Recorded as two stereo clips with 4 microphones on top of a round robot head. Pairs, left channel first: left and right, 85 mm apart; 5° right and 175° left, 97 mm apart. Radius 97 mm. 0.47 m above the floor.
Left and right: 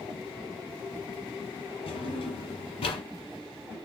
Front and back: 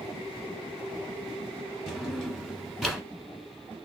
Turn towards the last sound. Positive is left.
turn(degrees=85)